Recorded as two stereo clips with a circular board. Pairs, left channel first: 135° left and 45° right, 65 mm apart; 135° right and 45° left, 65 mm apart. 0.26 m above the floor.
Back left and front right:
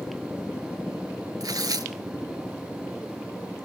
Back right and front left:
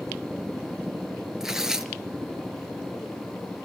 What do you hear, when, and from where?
1.4 s tearing paper: 35° right, 1.0 m